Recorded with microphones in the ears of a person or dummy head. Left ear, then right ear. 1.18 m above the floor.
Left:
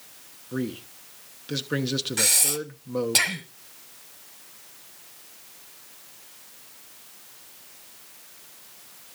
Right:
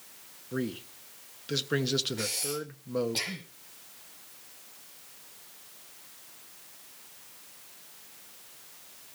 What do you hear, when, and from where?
0.5 s a man speaking: centre (ahead or behind), 1.0 m
2.2 s breathing: 50° left (ahead or behind), 1.4 m